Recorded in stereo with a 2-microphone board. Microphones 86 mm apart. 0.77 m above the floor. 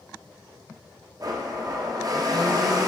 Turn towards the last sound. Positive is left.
turn(degrees=-45)  # may be behind; listen again after turning